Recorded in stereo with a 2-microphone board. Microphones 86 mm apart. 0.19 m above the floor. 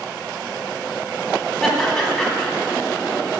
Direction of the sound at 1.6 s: 5° left (ahead or behind).